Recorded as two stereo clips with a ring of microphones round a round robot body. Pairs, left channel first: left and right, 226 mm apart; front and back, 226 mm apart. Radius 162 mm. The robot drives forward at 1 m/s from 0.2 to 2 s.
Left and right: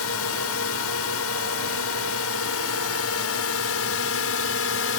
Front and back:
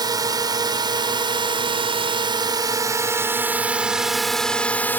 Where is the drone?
110° left; by 5.0 s 80° left.